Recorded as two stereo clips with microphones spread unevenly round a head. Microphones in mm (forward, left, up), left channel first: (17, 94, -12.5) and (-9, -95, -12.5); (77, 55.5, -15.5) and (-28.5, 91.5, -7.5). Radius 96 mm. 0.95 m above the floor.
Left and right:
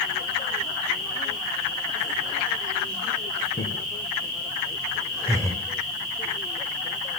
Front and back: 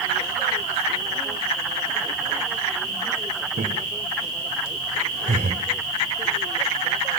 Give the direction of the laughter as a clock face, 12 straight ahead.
7 o'clock.